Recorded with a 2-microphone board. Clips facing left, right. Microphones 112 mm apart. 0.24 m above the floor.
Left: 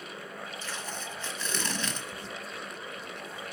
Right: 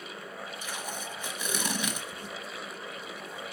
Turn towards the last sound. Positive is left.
turn(degrees=-10)  # may be behind; listen again after turning